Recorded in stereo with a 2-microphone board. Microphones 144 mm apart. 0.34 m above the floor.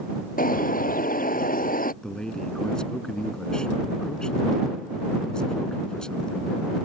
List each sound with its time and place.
0.4 s a bird: 80° left
2.0 s a man speaking: 5° left (ahead or behind)